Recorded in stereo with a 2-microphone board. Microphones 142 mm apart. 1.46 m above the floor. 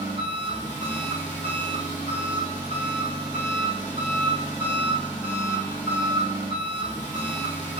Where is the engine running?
55° left (ahead or behind), 1.8 m.